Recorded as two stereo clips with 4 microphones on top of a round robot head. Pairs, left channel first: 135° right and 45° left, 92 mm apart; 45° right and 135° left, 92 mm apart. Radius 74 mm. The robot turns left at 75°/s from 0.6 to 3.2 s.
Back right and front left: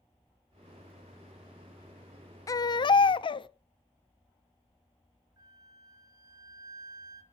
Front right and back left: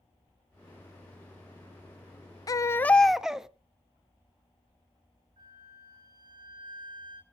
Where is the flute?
95° left, 2.5 m.